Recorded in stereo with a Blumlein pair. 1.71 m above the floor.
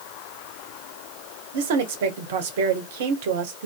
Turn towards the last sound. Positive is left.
turn(degrees=-55)